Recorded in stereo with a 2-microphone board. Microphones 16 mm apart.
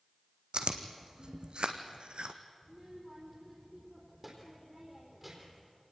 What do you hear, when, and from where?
0.5 s chewing: 75° right (ahead or behind), 1.5 m
2.6 s a child speaking: 10° right (ahead or behind), 3.5 m